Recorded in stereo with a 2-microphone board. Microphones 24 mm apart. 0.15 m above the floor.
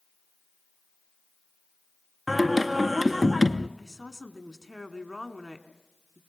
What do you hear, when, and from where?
2.3 s singing: 5° left (ahead or behind), 0.6 m
3.8 s a woman speaking: 5° left (ahead or behind), 1.2 m